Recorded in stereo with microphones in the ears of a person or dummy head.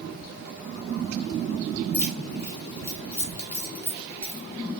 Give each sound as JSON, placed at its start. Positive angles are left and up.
{"t": 1.9, "sound": "keys jangling", "side_deg": 15, "distance_m": 0.9}